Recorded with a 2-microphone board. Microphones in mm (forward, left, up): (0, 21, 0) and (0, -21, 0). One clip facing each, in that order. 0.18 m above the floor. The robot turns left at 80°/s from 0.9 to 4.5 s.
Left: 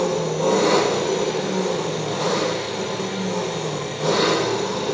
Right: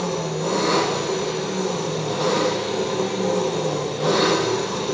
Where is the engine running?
90° left, 5.5 m; by 5.0 s 160° left, 5.5 m.